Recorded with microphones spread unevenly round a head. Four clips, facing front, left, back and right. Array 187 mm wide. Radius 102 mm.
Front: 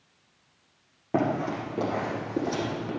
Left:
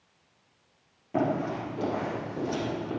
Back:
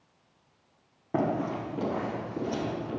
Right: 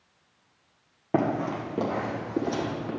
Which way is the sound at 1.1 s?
75° right.